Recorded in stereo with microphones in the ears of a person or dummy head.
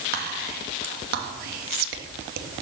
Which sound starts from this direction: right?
Whispering, at 0.1 s.